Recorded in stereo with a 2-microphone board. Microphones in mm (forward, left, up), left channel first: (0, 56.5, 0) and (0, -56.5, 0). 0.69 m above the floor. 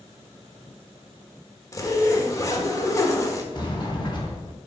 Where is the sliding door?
40° left (ahead or behind), 1.6 m.